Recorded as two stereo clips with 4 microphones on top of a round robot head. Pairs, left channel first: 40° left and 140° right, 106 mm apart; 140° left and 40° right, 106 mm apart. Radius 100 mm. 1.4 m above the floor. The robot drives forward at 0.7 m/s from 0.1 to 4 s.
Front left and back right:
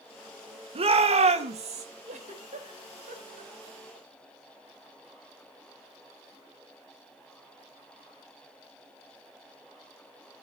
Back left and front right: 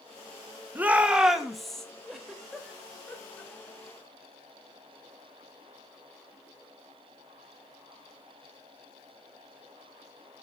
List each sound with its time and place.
0.8 s a shout: 115° right, 1.8 m; by 1.9 s 135° right, 2 m
2.1 s a giggle: 130° right, 2.5 m; by 4.1 s 145° right, 3.5 m